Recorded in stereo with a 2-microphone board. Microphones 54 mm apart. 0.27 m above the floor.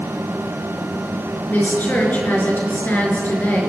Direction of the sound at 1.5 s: 35° left (ahead or behind).